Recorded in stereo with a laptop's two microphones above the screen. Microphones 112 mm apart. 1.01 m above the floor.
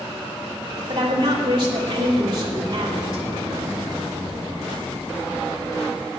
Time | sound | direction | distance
0.9 | a woman speaking | 45° right (ahead or behind) | 2.5 m